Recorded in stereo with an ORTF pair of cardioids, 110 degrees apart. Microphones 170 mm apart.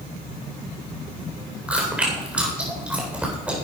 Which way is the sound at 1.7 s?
5° right.